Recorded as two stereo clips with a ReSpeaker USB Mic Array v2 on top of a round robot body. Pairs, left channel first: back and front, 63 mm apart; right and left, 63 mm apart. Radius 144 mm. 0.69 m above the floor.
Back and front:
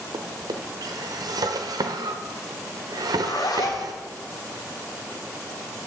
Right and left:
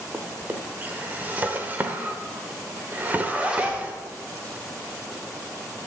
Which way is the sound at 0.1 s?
20° left.